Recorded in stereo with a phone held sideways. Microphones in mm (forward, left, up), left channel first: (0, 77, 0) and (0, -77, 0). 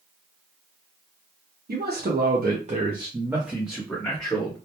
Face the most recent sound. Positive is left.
turn(degrees=15)  # may be behind; listen again after turning